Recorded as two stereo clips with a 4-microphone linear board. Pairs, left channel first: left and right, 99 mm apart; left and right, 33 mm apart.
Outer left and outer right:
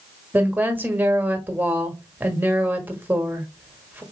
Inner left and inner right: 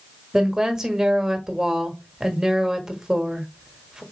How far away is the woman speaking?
About 1.1 m.